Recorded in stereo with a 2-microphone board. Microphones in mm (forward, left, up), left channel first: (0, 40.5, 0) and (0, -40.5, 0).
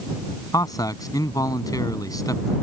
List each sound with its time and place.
0.5 s a man speaking: 50° left (ahead or behind)